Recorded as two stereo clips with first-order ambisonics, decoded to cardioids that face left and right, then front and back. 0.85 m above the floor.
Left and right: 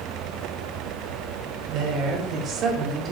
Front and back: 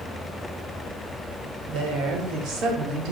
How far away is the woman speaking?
About 4 m.